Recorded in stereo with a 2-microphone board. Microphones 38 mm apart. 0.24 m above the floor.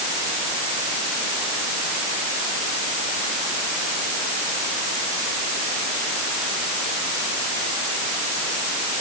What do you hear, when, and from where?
Only background noise.